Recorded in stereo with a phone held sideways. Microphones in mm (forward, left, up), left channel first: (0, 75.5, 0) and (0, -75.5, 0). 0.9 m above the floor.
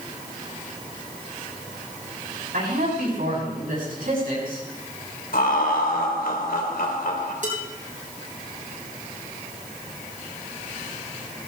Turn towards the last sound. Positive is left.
turn(degrees=-60)  # may be behind; listen again after turning